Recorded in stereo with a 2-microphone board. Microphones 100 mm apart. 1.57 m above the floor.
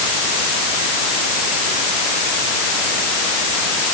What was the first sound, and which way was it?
Only background noise.